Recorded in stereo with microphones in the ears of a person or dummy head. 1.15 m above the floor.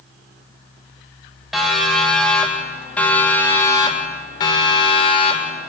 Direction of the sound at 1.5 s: Centre (ahead or behind).